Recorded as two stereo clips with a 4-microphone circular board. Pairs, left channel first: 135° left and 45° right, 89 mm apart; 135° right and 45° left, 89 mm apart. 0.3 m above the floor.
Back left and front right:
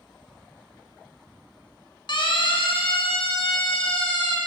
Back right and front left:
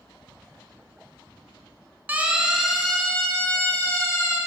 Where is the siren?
115° left, 3 m; by 4.4 s 170° left, 4.5 m.